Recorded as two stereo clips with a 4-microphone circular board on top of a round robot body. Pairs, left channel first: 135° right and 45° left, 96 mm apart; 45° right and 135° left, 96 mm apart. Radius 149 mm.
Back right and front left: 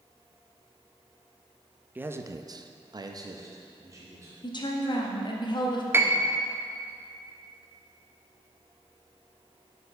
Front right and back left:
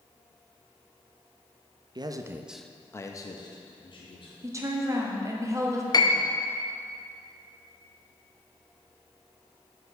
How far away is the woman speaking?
About 1.2 m.